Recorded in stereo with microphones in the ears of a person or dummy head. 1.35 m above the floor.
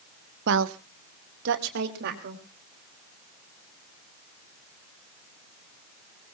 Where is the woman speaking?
65° right (ahead or behind), 1.0 m; by 2.4 s 60° right (ahead or behind), 3 m.